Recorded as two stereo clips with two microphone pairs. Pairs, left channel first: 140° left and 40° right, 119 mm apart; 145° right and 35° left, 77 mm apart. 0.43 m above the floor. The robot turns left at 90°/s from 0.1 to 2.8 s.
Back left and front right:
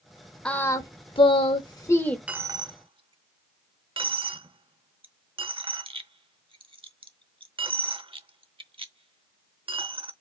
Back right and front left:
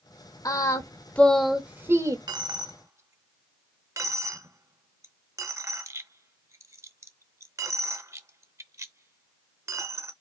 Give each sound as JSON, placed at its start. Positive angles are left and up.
{"t": 0.5, "sound": "singing", "azimuth_deg": -145, "distance_m": 0.8}
{"t": 2.3, "sound": "a dropped coin", "azimuth_deg": 40, "distance_m": 0.6}